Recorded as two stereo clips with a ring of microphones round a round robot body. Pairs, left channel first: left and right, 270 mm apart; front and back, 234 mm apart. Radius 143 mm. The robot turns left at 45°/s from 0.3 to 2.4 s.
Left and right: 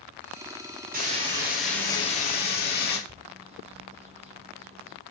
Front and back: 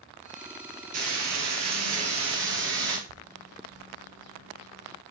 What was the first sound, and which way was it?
Frying, 150° right.